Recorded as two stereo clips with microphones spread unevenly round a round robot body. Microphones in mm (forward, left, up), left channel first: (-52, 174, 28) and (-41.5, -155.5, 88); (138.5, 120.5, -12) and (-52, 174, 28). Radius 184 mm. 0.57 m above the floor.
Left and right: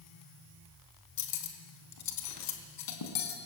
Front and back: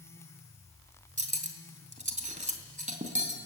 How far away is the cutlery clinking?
About 3.5 m.